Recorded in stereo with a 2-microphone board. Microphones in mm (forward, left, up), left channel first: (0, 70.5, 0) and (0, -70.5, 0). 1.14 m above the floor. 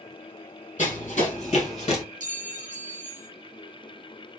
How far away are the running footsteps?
About 2.5 m.